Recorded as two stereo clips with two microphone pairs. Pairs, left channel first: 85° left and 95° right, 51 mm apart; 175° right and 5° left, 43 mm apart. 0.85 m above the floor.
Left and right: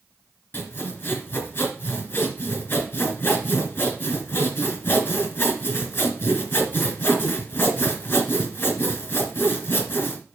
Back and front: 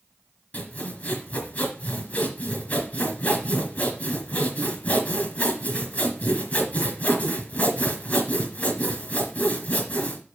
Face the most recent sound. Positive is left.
turn(degrees=135)